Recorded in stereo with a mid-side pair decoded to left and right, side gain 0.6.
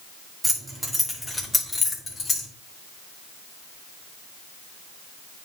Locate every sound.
0.4 s keys jangling: 10° right, 2.5 m; by 2.5 s 30° left, 3 m